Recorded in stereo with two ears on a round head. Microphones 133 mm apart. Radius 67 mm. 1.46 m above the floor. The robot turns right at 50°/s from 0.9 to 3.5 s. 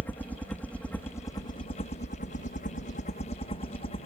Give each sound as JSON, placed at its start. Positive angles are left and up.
{"t": 0.0, "sound": "a helicopter", "side_deg": 10}